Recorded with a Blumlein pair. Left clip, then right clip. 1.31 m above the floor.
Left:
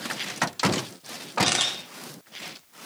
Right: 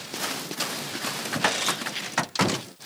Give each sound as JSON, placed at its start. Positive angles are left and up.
{"t": 1.4, "sound": "a camera shutter", "azimuth_deg": 30, "distance_m": 4.5}